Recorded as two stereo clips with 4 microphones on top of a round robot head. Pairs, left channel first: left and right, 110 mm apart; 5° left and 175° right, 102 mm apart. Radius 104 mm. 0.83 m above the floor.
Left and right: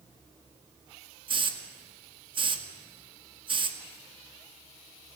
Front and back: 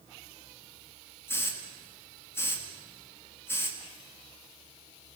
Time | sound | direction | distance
1.3 | a hiss | 60° right | 2.0 m